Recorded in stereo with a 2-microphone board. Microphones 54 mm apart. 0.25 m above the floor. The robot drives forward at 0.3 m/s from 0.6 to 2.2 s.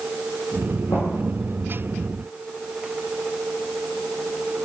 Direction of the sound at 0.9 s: 75° left (ahead or behind).